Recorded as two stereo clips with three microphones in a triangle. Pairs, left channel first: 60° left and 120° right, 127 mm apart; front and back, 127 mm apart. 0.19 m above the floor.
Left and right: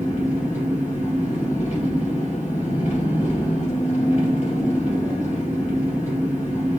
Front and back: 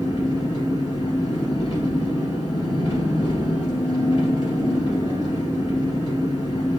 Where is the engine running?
45° left, 2.5 m.